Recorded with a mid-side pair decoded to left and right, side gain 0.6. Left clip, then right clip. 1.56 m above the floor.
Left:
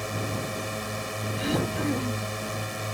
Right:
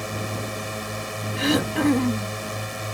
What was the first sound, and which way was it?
A drone, 10° right.